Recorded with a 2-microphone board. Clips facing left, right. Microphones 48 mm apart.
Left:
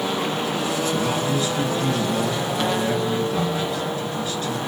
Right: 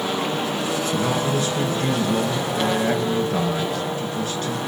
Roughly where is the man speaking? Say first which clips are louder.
Right 1 dB; right.